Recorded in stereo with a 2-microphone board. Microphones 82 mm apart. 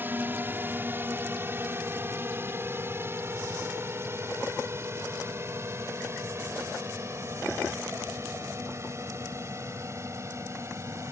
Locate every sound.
0.0 s a drone: 25° right (ahead or behind); by 11.1 s 35° right (ahead or behind)